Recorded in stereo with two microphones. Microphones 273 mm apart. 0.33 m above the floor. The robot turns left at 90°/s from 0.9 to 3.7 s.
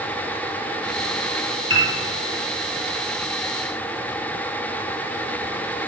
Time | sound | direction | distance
1.7 | a piano | 50° right (ahead or behind) | 5.5 m